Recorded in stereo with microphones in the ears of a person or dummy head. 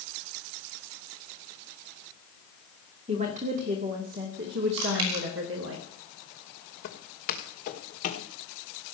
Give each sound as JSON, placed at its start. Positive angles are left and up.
{"t": 3.1, "sound": "a woman speaking", "side_deg": -30, "distance_m": 2.0}
{"t": 4.8, "sound": "chewing", "side_deg": -80, "distance_m": 5.0}
{"t": 6.8, "sound": "footsteps", "side_deg": 55, "distance_m": 4.5}